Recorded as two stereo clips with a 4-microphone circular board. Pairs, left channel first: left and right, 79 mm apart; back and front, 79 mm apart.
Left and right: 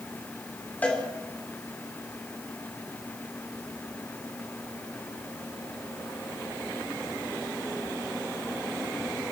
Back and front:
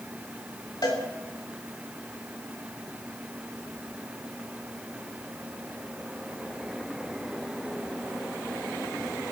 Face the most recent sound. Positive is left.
turn(degrees=160)